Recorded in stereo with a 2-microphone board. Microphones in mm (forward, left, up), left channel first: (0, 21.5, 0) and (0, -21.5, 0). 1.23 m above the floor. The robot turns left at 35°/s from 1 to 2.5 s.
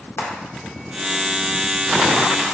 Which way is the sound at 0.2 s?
75° left (ahead or behind).